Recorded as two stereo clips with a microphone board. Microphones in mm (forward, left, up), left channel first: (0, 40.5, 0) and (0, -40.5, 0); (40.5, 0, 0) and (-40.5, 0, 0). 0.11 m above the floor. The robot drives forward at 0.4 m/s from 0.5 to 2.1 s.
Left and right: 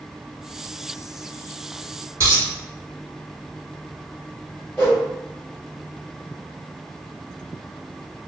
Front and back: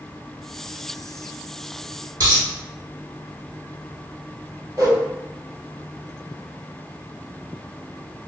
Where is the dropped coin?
140° right, 1.6 m.